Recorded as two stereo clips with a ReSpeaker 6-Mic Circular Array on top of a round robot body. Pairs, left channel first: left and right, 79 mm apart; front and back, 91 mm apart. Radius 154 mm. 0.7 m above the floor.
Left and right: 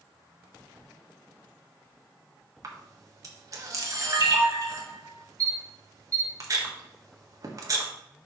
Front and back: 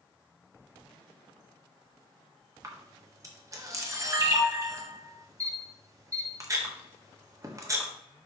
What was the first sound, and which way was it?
A camera shutter, 130° right.